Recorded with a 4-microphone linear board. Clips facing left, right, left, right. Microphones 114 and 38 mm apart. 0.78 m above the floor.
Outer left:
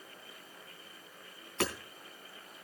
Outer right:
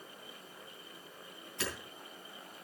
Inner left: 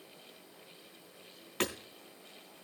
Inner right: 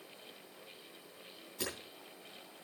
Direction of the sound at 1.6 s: 70° left (ahead or behind).